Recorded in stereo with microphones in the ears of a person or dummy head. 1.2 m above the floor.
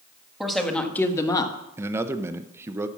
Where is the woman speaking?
Centre (ahead or behind), 1.6 m; by 1.6 s 25° left (ahead or behind), 1.3 m.